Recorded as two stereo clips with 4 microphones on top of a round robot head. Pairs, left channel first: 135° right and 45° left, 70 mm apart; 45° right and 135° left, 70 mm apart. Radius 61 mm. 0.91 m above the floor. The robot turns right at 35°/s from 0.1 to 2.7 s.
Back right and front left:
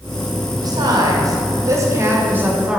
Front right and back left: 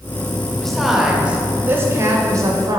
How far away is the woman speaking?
About 1.5 m.